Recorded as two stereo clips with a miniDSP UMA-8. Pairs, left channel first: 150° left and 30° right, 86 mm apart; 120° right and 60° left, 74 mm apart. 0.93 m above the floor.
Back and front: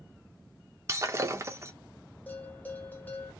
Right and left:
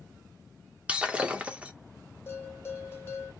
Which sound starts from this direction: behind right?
A bell, at 2.3 s.